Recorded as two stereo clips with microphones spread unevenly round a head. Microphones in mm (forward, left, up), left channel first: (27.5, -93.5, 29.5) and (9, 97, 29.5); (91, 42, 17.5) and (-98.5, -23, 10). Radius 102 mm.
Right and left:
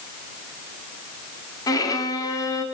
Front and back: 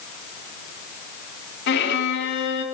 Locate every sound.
1.7 s a violin: 15° right, 3 m